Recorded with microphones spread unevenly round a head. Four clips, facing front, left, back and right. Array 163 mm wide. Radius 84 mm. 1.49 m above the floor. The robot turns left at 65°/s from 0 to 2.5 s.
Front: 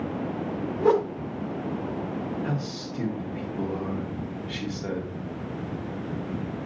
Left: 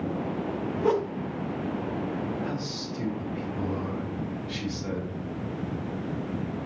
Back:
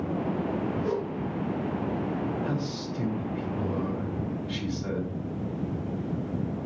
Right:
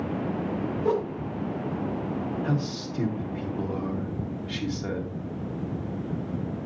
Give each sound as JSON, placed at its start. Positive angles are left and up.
{"t": 0.8, "sound": "a whoosh", "azimuth_deg": 25, "distance_m": 0.7}
{"t": 2.4, "sound": "a man speaking", "azimuth_deg": -35, "distance_m": 1.8}